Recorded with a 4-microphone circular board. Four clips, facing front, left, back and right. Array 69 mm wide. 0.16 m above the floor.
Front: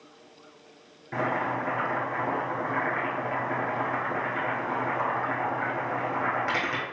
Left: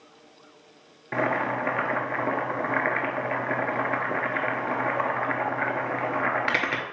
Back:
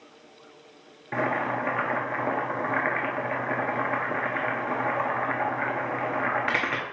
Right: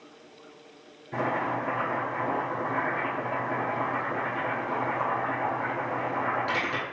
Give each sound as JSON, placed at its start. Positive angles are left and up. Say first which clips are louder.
{"t": 1.1, "sound": "boiling", "louder": "left 3 dB, back 1 dB", "azimuth_deg": 115, "distance_m": 0.8}